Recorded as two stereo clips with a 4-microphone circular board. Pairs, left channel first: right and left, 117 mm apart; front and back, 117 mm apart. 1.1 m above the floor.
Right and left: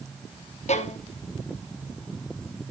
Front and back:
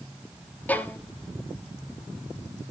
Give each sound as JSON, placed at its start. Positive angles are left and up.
{"t": 0.7, "sound": "a violin", "azimuth_deg": -75, "distance_m": 0.7}